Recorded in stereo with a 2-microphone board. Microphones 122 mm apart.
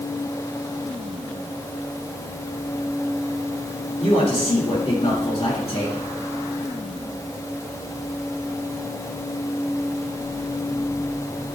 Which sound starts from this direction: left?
A man speaking, at 4.0 s.